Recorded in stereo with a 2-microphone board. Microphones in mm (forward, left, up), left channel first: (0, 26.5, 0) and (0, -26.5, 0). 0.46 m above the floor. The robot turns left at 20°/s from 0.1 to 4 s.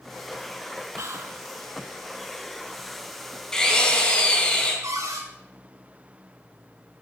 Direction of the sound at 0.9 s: 65° right (ahead or behind).